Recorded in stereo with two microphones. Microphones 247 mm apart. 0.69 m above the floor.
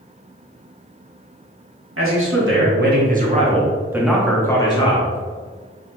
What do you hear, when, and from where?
2.0 s a man speaking: 60° right (ahead or behind), 1.4 m; by 5.2 s 30° left (ahead or behind), 1.1 m